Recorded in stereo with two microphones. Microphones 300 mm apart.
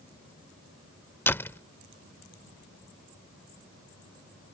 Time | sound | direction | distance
1.3 | a door slam | 10° left (ahead or behind) | ?